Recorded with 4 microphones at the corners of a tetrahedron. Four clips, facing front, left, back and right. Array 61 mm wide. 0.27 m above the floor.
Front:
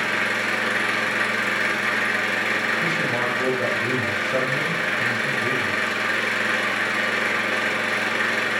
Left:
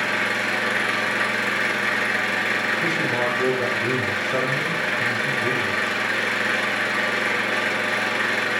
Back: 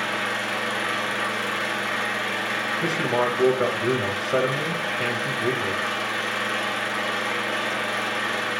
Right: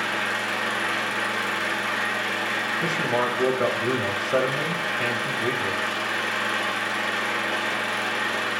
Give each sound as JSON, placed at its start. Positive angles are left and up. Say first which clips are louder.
{"t": 0.0, "sound": "an engine running", "louder": "left 3 dB, front 3 dB", "azimuth_deg": 40, "distance_m": 2.0}
{"t": 2.8, "sound": "a man speaking", "louder": "left 2 dB, even", "azimuth_deg": -140, "distance_m": 1.4}